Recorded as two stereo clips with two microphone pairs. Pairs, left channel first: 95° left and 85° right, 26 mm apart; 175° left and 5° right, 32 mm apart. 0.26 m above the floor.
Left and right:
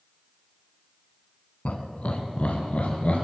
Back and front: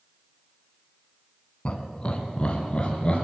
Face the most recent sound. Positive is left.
turn(degrees=115)